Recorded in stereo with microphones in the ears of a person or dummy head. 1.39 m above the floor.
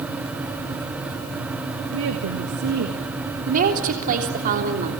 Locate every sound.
1.9 s a woman speaking: 70° right (ahead or behind), 1.7 m; by 3.0 s 55° right (ahead or behind), 2.5 m
3.5 s a woman speaking: 45° right (ahead or behind), 3 m